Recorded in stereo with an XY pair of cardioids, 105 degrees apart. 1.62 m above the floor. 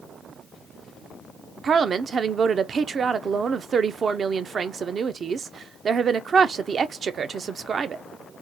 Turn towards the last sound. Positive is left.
turn(degrees=-45)